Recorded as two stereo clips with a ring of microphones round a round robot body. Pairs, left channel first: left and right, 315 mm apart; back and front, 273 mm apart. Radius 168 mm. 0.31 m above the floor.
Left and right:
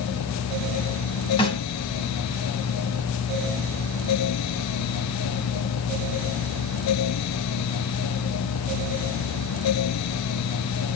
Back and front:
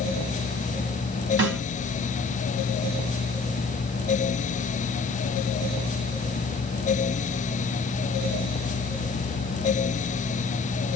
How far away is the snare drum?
About 2.5 m.